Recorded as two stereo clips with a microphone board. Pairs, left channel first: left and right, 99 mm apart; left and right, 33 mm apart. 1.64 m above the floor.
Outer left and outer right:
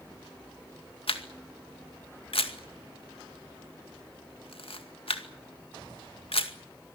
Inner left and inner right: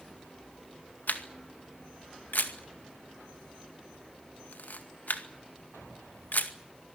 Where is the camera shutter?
80° left, 2 m.